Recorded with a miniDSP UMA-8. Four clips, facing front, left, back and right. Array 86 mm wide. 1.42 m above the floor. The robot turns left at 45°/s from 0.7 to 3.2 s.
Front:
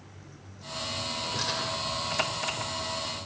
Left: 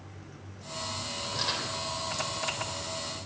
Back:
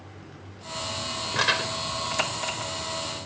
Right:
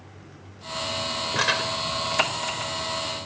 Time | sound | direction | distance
1.4 | crumpling | 125° right | 3 m